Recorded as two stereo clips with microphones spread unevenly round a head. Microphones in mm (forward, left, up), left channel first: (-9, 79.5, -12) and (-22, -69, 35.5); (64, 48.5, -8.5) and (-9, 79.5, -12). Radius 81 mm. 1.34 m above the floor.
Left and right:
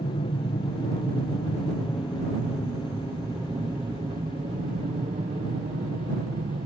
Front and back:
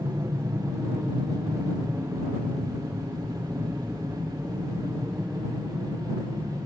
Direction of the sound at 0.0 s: 110° left.